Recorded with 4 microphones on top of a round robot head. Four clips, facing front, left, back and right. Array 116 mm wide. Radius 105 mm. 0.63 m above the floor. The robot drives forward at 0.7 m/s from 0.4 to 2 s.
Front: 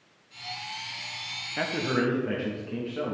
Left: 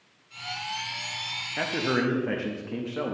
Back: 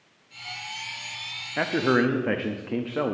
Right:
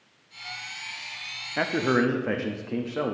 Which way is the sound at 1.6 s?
135° right.